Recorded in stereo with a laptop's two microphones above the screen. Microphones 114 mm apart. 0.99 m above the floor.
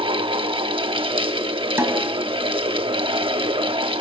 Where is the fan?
50° right (ahead or behind), 1.0 m.